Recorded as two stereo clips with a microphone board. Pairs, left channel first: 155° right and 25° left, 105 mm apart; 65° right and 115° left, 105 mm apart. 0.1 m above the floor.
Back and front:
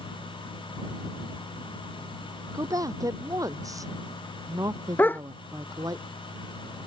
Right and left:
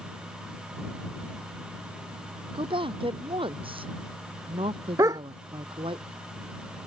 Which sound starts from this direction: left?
A woman speaking, at 2.5 s.